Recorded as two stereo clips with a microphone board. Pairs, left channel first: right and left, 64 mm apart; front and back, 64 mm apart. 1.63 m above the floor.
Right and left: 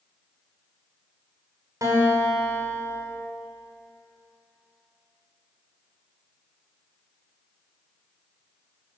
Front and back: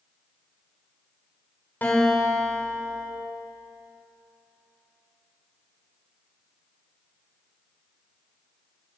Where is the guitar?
60° left, 6.5 m.